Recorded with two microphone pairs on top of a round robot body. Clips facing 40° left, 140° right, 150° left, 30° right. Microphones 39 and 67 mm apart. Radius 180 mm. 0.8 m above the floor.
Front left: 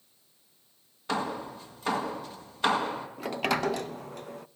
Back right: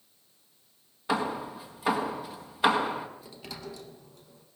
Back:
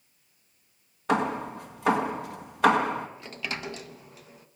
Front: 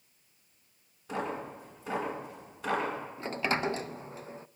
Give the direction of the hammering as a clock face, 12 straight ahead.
7 o'clock.